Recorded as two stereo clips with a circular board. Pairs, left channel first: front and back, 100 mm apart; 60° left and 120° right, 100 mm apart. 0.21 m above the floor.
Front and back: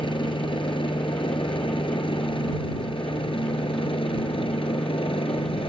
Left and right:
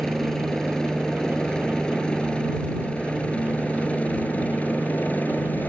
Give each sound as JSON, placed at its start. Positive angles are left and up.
{"t": 0.0, "sound": "a helicopter", "azimuth_deg": -25}